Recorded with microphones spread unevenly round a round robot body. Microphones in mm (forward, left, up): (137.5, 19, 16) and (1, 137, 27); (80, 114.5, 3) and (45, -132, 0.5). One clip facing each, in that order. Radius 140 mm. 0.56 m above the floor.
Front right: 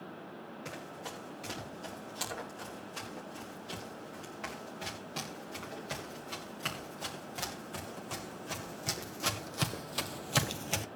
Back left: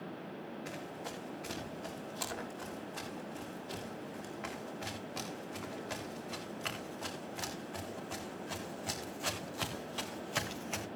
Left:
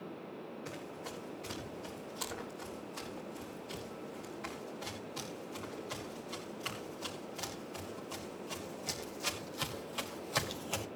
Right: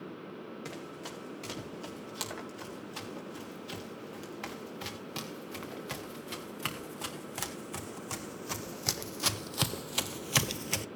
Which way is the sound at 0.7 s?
110° right.